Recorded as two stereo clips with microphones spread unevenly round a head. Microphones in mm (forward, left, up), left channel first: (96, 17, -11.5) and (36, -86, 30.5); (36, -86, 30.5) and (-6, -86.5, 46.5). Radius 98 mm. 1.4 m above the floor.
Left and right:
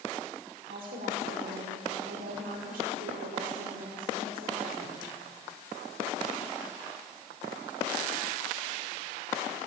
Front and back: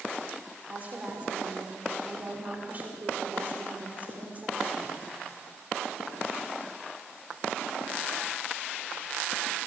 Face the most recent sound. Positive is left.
turn(degrees=-130)